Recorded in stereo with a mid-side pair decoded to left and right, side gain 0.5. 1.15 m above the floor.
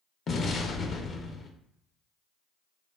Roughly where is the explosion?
Ahead left.